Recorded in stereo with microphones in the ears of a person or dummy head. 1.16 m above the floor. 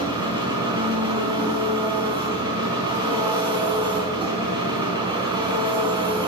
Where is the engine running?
20° right (ahead or behind), 4 m.